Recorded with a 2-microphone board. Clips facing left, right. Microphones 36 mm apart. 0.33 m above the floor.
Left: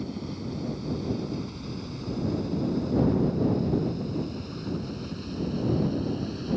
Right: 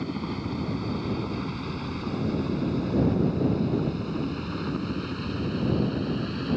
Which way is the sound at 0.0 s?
40° right (ahead or behind).